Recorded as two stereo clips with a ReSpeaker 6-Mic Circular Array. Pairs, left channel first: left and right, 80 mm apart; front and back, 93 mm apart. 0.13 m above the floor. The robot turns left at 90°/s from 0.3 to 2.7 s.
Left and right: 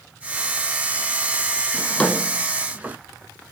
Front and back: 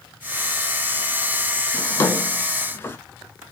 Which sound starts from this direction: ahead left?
A drawer, at 1.7 s.